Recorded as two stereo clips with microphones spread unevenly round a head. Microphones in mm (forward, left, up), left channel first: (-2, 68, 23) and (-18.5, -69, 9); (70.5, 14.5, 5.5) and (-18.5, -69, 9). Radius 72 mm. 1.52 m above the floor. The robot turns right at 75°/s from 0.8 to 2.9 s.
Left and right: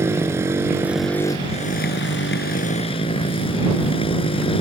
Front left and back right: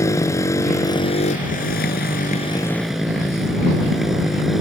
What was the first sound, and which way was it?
A motorcycle, 20° right.